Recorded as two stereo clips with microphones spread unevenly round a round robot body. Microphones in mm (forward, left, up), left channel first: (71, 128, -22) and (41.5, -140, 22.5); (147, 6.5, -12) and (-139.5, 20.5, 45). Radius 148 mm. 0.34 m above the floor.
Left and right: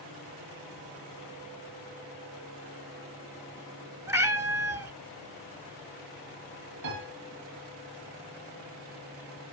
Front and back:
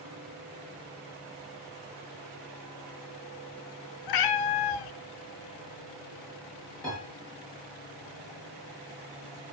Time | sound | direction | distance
4.1 | a cat meowing | 20° right | 0.7 m
6.8 | a piano | 90° right | 7.5 m